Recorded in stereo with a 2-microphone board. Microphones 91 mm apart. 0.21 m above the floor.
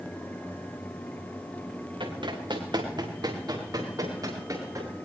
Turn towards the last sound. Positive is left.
turn(degrees=-35)  # may be behind; listen again after turning